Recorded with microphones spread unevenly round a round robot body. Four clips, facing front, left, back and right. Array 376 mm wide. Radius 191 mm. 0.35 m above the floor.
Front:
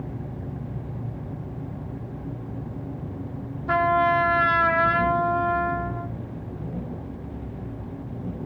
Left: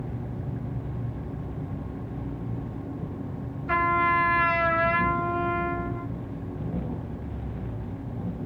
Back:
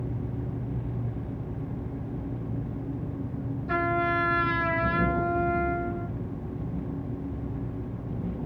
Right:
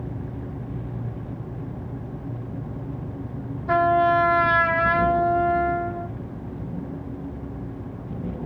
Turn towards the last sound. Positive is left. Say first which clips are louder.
# right 5 dB, front 7 dB
turn(degrees=-40)